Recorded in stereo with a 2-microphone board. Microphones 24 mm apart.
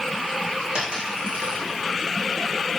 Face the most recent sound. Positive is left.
turn(degrees=-45)  # may be behind; listen again after turning